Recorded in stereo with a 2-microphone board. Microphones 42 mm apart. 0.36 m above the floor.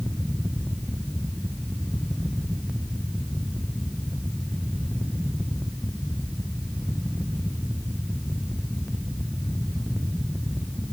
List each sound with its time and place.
Only background noise.